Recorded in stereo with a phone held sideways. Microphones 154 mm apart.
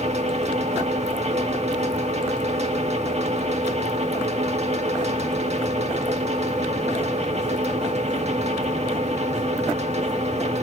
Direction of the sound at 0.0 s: 45° right (ahead or behind).